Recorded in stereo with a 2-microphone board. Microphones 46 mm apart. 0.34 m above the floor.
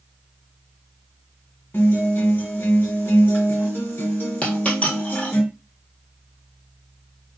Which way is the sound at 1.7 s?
45° left (ahead or behind).